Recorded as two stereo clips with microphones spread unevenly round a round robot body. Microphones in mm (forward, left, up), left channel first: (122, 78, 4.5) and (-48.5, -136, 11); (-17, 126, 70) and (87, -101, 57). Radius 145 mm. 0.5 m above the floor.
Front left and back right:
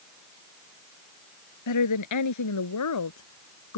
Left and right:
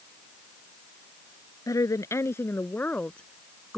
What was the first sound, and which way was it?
A woman speaking, 40° left.